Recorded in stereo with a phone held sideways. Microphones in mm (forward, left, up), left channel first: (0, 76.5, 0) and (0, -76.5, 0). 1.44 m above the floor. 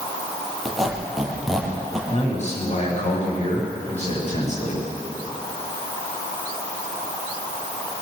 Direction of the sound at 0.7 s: Centre (ahead or behind).